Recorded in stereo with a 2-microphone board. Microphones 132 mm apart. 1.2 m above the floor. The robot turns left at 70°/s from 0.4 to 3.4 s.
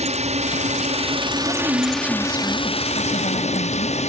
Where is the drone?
75° right; by 4.1 s 75° left.